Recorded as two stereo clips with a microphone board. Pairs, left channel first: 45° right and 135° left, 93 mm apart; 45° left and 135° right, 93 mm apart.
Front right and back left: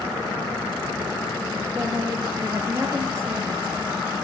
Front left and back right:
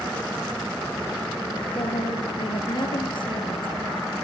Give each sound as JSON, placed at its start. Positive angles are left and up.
{"t": 1.8, "sound": "a woman speaking", "azimuth_deg": 75, "distance_m": 5.5}